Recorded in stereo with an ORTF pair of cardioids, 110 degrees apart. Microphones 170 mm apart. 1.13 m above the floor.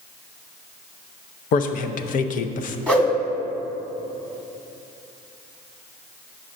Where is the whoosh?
5° left, 1.5 m.